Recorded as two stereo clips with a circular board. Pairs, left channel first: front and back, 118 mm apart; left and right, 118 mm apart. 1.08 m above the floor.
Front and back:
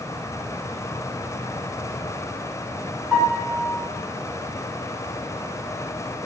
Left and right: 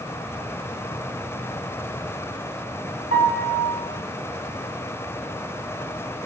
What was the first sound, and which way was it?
A piano, 100° right.